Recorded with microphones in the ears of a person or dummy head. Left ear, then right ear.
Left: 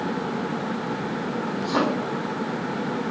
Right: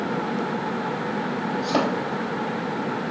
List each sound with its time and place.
1.6 s a thud: 70° right (ahead or behind), 3.5 m